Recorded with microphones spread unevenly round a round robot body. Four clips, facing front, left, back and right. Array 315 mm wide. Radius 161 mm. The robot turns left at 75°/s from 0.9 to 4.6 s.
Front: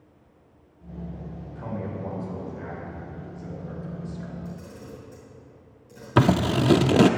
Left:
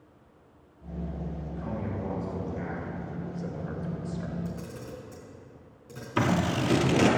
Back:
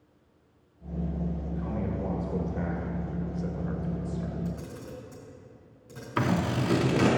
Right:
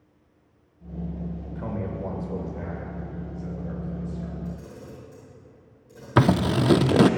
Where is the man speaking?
75° right, 2.5 m; by 4.3 s 75° left, 2.5 m.